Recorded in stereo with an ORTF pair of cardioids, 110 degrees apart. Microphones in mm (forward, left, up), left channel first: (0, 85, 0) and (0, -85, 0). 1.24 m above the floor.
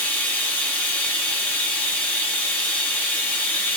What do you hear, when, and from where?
0.0 s running water: 10° left, 0.8 m